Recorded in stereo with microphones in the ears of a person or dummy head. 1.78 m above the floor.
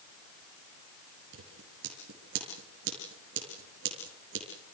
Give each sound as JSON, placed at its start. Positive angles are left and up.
{"t": 1.3, "sound": "scissors", "side_deg": -75, "distance_m": 6.0}